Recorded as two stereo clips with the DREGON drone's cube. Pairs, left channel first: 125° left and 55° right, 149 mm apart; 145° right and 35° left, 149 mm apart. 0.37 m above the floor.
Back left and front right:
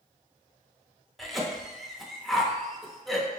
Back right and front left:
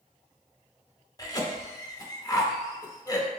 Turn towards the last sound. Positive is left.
turn(degrees=-145)